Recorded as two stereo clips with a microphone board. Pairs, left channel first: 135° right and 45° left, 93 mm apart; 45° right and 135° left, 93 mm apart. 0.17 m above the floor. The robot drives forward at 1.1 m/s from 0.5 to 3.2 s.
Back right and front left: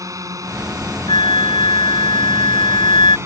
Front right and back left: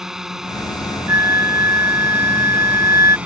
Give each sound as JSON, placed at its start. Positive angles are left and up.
{"t": 0.0, "sound": "a drone", "azimuth_deg": 55}
{"t": 1.1, "sound": "a flute", "azimuth_deg": -165}